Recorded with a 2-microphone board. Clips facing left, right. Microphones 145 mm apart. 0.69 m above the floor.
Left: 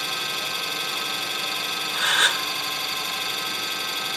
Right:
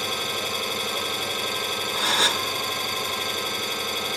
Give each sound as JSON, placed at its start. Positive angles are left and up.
{"t": 0.0, "sound": "an engine running", "side_deg": -45, "distance_m": 3.0}
{"t": 1.9, "sound": "a gasp", "side_deg": -35, "distance_m": 0.9}